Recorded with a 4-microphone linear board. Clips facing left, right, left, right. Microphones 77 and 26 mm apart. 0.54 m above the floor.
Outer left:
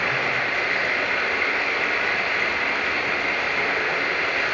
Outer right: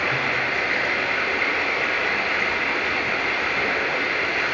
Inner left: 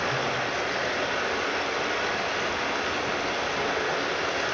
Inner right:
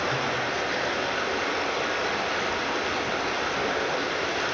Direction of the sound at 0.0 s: Centre (ahead or behind).